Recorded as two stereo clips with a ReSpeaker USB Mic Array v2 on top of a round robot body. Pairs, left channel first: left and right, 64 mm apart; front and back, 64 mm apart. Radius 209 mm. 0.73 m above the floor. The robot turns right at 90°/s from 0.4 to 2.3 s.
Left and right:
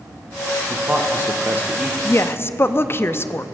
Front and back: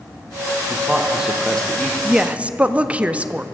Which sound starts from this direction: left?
A woman speaking, at 2.0 s.